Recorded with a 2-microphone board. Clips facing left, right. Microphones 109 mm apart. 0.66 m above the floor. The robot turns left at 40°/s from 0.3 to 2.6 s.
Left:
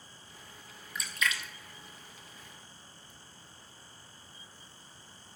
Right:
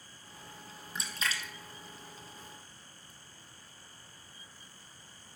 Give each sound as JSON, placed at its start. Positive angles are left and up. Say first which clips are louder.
{"t": 0.9, "sound": "a splash", "louder": "left 3 dB", "side_deg": -25, "distance_m": 0.7}